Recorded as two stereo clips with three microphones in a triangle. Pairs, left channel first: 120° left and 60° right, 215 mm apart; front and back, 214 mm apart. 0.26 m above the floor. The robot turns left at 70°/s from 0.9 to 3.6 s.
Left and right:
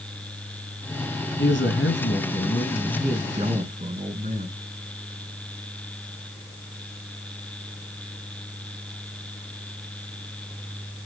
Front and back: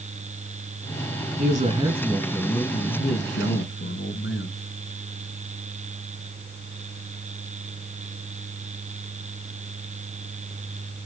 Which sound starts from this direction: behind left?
A man speaking, at 1.4 s.